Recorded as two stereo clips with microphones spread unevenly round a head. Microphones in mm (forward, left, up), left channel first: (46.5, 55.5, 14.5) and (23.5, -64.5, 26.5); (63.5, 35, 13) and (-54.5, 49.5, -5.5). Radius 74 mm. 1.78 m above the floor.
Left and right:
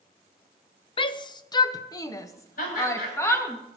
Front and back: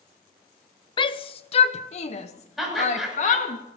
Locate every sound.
1.0 s a shout: 30° left, 0.7 m; by 3.6 s 10° left, 2 m
2.6 s laughter: 85° left, 8 m